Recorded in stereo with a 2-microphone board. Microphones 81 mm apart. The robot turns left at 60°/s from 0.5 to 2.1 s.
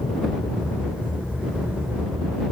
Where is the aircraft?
60° left (ahead or behind); by 2.5 s 35° right (ahead or behind).